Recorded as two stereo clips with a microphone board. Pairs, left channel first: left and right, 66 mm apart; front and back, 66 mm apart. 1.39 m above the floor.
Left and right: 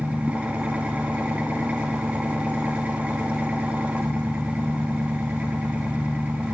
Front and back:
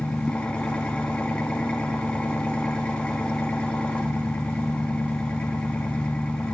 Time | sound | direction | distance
0.0 | an engine running | 50° right | 0.8 m